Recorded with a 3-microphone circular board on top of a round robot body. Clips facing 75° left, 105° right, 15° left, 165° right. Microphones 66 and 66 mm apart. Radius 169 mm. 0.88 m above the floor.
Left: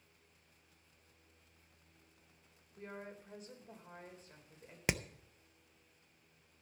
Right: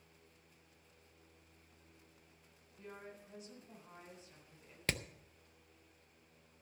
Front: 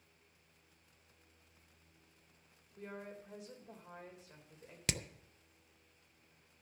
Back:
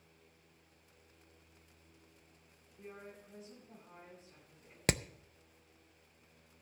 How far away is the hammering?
About 0.5 m.